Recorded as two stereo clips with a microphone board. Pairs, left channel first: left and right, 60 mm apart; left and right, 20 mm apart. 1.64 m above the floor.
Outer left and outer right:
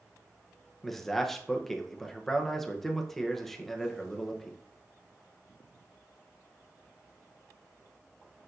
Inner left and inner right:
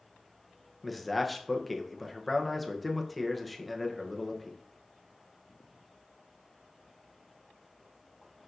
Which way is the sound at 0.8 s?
5° left (ahead or behind).